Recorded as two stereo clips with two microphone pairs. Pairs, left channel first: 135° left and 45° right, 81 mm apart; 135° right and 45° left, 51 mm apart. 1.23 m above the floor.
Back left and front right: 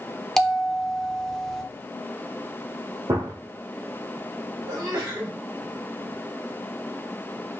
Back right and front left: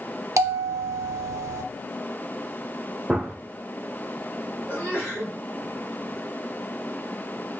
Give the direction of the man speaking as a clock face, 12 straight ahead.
No man speaking in this recording.